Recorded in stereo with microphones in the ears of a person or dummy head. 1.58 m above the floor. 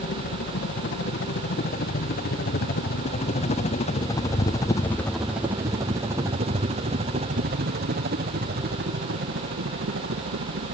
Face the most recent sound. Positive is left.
turn(degrees=-60)  # may be behind; listen again after turning